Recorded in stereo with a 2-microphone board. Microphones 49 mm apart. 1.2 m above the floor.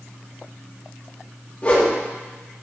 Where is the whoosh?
30° left (ahead or behind), 2.0 m.